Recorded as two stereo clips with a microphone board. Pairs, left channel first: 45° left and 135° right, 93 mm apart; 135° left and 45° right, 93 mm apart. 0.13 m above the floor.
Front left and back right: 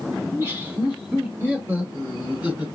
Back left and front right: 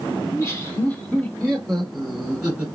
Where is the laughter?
170° left, 1.8 m; by 2.7 s 95° right, 1.5 m.